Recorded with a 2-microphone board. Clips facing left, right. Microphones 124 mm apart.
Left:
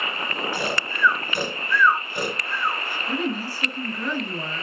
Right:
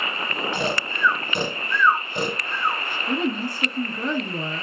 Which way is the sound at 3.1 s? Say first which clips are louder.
Right 2 dB; 20° right (ahead or behind).